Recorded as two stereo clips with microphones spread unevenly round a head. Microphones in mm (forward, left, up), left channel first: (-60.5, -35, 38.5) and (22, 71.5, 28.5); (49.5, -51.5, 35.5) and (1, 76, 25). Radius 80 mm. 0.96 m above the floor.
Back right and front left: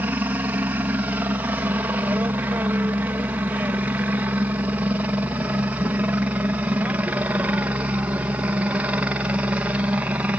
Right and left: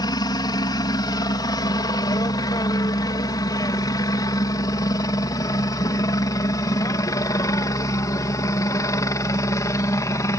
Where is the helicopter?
20° right; by 10.4 s 15° right.